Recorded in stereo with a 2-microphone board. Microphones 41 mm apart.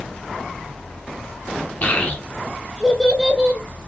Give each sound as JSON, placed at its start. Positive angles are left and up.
{"t": 1.8, "sound": "a child speaking", "side_deg": 40, "distance_m": 1.1}